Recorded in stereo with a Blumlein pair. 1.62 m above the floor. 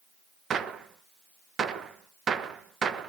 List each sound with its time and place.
0.5 s a gunshot: 20° right, 1.3 m